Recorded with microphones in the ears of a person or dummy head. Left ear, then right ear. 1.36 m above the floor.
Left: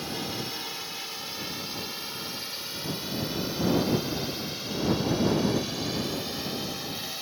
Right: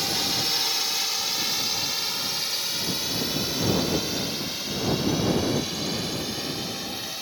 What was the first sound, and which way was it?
A drone, 35° right (ahead or behind).